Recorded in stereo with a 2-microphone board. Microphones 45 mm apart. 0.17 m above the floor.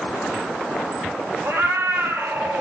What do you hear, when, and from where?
1.4 s a cat meowing: 65° right (ahead or behind), 2 m